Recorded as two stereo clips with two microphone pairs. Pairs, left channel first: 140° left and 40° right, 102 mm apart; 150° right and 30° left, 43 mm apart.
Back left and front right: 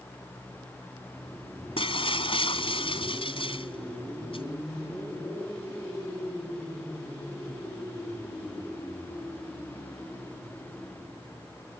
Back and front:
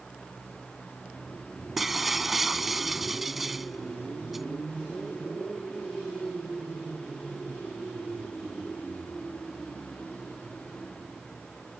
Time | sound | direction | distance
1.8 | breaking glass | 115° left | ?